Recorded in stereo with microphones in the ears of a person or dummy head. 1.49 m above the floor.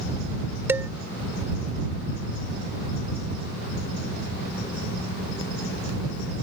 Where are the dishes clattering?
10° right (ahead or behind).